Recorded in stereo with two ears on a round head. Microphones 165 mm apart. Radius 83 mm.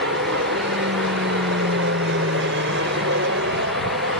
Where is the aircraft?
65° right (ahead or behind).